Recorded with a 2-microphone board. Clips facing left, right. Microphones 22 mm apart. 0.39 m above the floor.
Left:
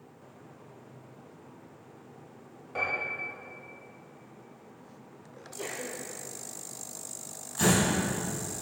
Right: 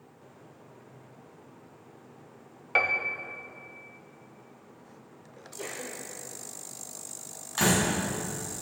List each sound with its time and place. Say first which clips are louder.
2.8 s a piano: right 5 dB; 70° right (ahead or behind), 0.7 m
5.4 s a sneeze: left 1 dB; 5° right (ahead or behind), 0.9 m
7.6 s a door slam: even; 55° right (ahead or behind), 3 m